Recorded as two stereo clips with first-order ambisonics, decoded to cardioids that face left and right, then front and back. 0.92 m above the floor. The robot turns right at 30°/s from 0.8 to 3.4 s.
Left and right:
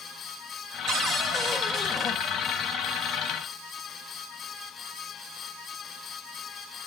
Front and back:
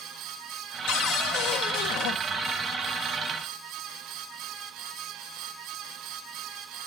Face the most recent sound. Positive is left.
turn(degrees=45)